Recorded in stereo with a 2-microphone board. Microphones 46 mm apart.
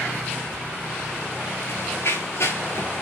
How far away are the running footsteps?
About 6 m.